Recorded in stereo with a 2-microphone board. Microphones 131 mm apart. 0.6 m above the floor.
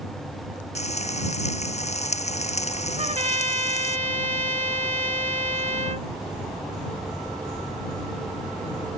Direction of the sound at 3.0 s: 60° right (ahead or behind).